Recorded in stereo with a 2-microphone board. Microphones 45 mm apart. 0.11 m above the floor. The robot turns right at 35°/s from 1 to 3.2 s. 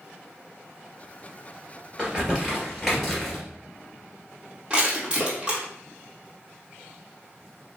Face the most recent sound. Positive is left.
turn(degrees=-20)  # may be behind; listen again after turning